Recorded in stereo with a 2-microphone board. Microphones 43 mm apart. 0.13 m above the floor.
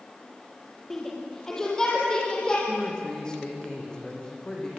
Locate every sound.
0.9 s a shout: 10° left (ahead or behind), 4.5 m; by 2.6 s 20° left (ahead or behind), 6 m
2.7 s a man speaking: 20° left (ahead or behind), 5.5 m